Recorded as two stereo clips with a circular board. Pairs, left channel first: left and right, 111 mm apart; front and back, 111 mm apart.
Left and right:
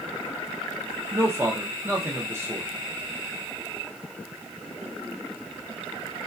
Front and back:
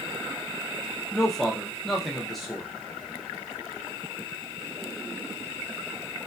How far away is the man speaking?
About 0.6 m.